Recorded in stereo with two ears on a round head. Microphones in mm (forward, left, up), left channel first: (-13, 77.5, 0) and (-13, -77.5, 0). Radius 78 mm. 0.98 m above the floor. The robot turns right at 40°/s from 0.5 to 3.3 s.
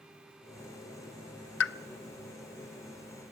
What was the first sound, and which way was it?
A pop, 70° left (ahead or behind).